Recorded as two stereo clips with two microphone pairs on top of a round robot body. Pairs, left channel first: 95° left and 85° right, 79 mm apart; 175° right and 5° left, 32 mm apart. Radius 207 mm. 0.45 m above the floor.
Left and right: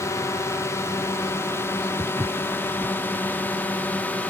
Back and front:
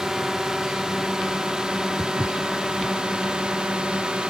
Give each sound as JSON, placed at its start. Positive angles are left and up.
{"t": 0.0, "sound": "a drone", "azimuth_deg": 70}
{"t": 2.0, "sound": "footsteps", "azimuth_deg": -20}